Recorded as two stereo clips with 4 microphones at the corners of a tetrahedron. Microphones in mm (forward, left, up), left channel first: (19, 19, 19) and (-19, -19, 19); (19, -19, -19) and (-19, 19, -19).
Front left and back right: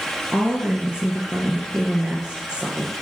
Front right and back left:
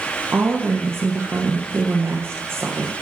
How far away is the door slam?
I don't hear a door slam.